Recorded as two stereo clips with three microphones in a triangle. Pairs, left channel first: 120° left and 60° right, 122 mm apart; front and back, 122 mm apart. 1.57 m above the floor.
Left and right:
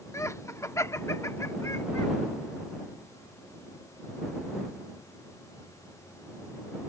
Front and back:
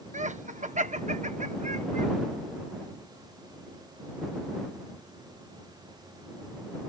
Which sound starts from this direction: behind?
Laughter, at 0.1 s.